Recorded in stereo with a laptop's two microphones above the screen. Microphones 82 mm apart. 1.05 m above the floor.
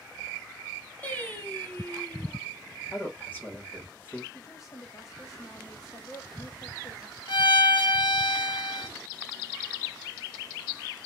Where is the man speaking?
20° left (ahead or behind), 1.9 m.